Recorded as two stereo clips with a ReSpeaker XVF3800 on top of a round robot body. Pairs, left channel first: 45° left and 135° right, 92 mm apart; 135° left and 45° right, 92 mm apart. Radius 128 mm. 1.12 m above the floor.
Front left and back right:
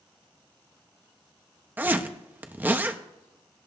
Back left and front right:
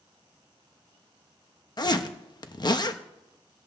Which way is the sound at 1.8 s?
160° left.